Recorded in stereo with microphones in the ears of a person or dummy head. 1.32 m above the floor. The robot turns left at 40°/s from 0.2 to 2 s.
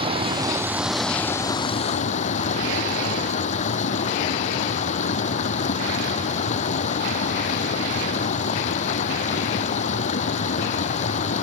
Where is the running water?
150° right; by 11.4 s 135° left.